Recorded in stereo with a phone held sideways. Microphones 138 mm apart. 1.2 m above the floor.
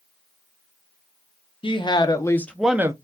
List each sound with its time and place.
1.6 s a woman speaking: 40° left (ahead or behind), 1.0 m; by 2.9 s 25° right (ahead or behind), 0.5 m